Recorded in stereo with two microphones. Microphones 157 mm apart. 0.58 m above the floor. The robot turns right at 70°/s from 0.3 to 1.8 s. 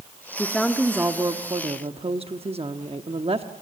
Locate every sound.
0.4 s a woman speaking: 160° left, 0.9 m; by 3.5 s 100° right, 0.9 m